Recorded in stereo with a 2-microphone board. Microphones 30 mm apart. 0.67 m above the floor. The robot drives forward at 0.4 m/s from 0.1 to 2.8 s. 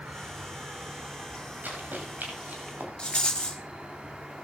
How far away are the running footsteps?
About 9 m.